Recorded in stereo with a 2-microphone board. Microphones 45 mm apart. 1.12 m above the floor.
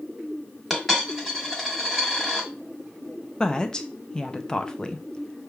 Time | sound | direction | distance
0.7 | a dropped coin | centre (ahead or behind) | 1.5 m
3.4 | a woman speaking | 20° left (ahead or behind) | 0.5 m